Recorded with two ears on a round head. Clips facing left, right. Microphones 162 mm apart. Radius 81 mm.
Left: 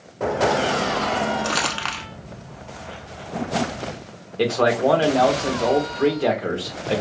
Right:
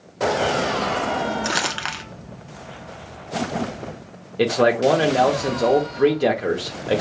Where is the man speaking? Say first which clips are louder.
Right 2 dB; 20° right (ahead or behind), 0.8 m.